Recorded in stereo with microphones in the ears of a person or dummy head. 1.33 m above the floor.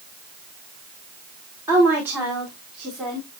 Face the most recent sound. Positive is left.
turn(degrees=0)  # may be behind; listen again after turning